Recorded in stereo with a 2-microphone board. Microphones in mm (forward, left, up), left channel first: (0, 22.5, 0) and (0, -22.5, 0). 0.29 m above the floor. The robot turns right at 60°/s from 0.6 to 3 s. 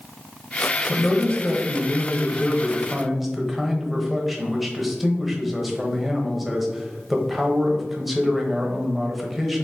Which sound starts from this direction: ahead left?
A man speaking, at 0.9 s.